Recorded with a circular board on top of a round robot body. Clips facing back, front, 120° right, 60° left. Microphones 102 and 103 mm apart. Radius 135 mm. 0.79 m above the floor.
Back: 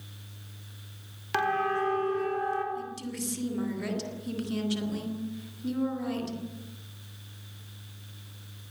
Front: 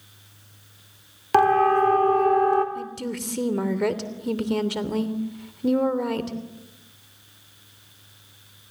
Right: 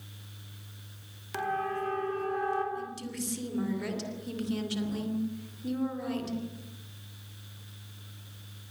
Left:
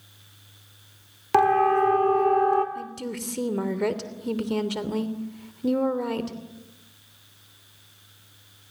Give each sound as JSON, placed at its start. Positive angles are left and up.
{"t": 1.3, "sound": "a siren", "azimuth_deg": 45, "distance_m": 3.5}
{"t": 2.8, "sound": "a woman speaking", "azimuth_deg": 30, "distance_m": 3.0}